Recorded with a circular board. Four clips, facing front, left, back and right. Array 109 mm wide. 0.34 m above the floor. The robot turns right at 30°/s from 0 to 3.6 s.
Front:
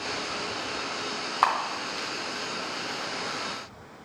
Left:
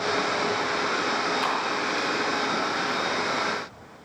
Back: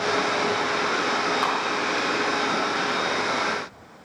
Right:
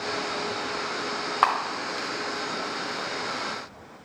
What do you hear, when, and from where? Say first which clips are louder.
1.4 s a camera shutter: right 2 dB, back 2 dB; 60° right, 1.3 m; by 2.1 s 40° right, 1.3 m